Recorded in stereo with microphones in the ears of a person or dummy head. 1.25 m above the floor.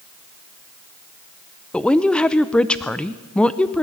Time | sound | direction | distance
1.7 | a woman speaking | 5° left (ahead or behind) | 0.6 m